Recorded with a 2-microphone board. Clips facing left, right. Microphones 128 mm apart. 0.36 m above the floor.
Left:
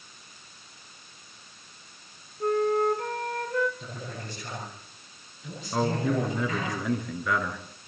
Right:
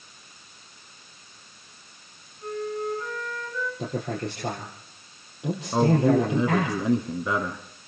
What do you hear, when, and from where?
2.4 s a flute: 70° left (ahead or behind), 2.5 m
3.8 s a man speaking: 80° right, 7.5 m
5.7 s a man speaking: 25° right (ahead or behind), 4 m